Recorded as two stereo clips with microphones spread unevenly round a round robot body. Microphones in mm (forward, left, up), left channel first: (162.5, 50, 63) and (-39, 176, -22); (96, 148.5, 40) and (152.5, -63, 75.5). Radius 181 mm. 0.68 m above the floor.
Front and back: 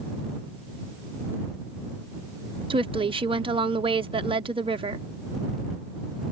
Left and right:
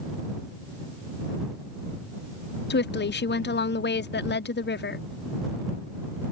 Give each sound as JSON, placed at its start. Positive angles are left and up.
{"t": 2.7, "sound": "a woman speaking", "azimuth_deg": 100}